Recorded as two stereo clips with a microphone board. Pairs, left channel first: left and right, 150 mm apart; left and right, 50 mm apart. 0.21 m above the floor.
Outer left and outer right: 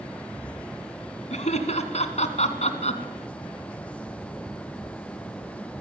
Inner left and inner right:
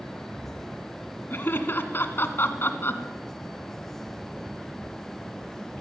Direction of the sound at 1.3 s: 50° left (ahead or behind).